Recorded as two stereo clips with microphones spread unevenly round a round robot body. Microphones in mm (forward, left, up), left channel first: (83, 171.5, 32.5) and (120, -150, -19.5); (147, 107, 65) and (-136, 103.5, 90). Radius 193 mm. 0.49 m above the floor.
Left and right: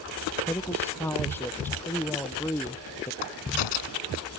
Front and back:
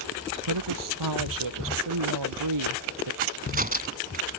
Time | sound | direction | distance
0.4 | a woman speaking | straight behind | ?
3.2 | a crack | 120° left | ?